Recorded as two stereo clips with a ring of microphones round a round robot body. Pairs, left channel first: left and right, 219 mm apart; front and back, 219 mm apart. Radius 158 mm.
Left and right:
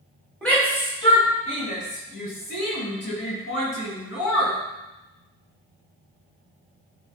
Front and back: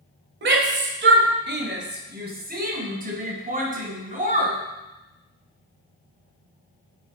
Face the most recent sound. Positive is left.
turn(degrees=125)